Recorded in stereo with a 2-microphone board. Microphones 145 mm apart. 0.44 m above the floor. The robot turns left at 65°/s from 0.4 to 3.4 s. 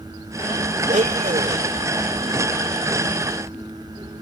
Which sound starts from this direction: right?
A blender, at 0.9 s.